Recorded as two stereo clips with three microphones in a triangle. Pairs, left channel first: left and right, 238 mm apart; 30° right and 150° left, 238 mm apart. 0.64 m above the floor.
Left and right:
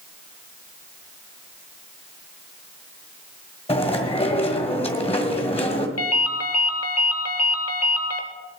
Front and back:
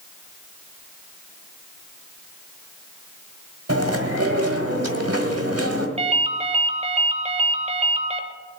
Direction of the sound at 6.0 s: 90° left.